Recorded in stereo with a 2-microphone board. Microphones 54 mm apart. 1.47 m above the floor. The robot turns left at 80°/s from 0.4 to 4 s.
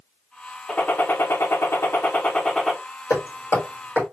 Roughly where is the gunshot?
Behind.